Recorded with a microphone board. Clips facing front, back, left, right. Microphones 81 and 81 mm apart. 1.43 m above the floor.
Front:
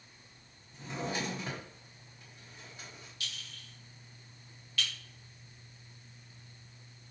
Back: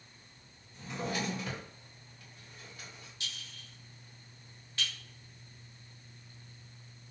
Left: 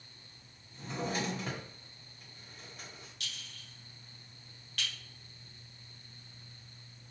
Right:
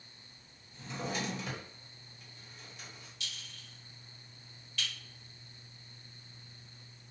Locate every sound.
0.7 s a drawer: 60° left, 1.0 m
3.2 s a clink: 120° left, 1.3 m